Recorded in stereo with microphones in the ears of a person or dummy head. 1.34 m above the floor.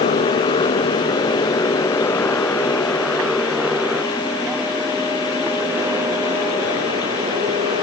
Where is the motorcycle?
35° left (ahead or behind); by 7.8 s 25° right (ahead or behind).